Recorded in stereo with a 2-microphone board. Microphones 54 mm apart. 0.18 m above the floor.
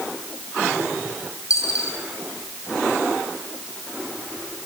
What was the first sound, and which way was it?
A dropped coin, 75° left (ahead or behind).